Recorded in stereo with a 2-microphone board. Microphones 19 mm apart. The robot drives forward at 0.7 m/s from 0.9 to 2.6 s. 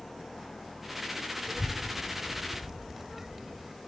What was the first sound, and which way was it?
An engine running, 35° left (ahead or behind).